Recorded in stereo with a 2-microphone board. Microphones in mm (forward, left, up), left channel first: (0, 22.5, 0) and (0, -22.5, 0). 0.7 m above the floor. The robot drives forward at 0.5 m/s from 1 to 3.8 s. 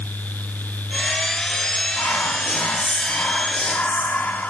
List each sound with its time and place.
2.0 s whispering: 55° left (ahead or behind), 1.0 m; by 4.5 s 45° left (ahead or behind), 1.1 m